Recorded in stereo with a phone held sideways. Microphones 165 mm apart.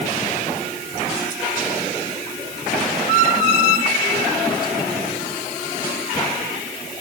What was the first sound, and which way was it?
Only background noise.